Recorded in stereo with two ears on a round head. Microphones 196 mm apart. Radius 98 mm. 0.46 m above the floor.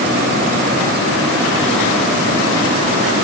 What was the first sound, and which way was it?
Only background noise.